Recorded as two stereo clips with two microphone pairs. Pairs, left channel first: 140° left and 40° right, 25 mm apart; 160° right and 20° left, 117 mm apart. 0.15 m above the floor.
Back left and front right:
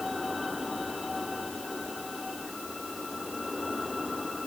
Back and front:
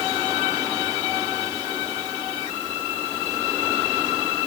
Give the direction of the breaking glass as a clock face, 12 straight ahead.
I don't hear breaking glass.